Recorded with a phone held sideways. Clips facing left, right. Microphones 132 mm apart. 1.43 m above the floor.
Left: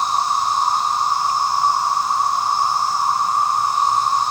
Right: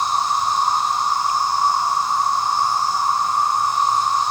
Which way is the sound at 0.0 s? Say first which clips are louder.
Left 1 dB; 35° left (ahead or behind).